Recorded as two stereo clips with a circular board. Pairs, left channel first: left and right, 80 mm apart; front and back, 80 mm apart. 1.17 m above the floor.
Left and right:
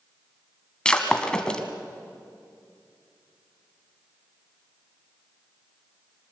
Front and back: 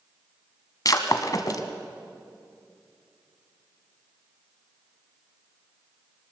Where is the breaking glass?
15° left, 1.5 m.